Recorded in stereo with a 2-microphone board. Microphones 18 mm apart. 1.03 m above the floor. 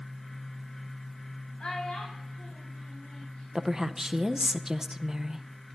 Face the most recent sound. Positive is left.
turn(degrees=-25)  # may be behind; listen again after turning